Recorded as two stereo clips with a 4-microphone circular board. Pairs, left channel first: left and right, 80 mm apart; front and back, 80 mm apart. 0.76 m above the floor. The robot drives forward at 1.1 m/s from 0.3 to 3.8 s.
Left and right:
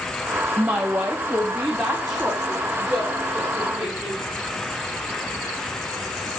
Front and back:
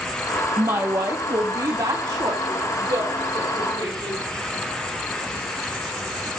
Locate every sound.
0.6 s a woman speaking: 150° right, 0.9 m; by 4.2 s 175° right, 4 m